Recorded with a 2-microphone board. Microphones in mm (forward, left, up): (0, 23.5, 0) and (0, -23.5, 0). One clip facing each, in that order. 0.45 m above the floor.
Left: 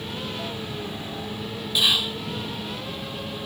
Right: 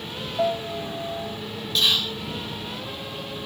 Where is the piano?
65° right (ahead or behind).